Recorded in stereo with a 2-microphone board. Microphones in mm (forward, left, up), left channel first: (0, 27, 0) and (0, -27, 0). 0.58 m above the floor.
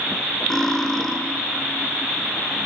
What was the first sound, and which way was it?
Cutlery clinking, 10° left (ahead or behind).